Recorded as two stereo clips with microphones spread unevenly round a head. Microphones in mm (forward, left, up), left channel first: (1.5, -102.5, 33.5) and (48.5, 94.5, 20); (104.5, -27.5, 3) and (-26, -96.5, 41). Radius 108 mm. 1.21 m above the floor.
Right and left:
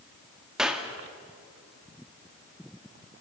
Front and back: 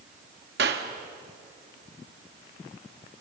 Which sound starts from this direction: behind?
A clap, at 0.6 s.